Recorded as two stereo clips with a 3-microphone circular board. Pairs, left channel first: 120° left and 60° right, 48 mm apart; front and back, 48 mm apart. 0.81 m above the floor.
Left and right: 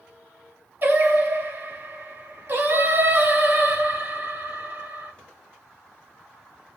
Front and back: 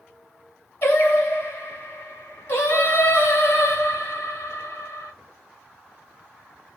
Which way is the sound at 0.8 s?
25° right.